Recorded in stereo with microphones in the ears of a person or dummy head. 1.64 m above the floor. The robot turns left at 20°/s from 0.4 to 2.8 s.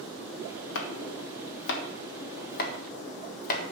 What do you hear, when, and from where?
0.8 s chopping: 70° left (ahead or behind), 1.5 m; by 3.6 s 50° left (ahead or behind), 1.5 m